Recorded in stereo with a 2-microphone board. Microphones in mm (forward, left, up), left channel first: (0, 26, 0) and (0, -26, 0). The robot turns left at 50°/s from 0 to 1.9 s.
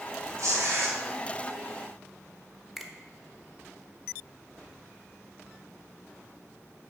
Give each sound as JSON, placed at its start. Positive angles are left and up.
{"t": 0.4, "sound": "tearing paper", "side_deg": -75, "distance_m": 2.5}
{"t": 2.8, "sound": "a finger snap", "side_deg": -5, "distance_m": 0.9}